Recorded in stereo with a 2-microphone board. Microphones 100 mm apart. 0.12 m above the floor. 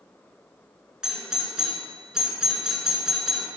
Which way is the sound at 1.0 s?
5° right (ahead or behind).